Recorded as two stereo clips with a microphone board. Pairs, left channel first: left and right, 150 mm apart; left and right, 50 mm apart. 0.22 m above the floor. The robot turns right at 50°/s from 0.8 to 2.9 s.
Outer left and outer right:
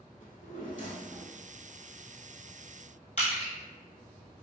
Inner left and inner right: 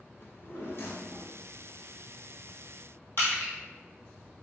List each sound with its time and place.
0.2 s a drawer: 100° left, 0.7 m; by 1.4 s 130° left, 0.7 m
3.2 s crushing: 55° left (ahead or behind), 1.4 m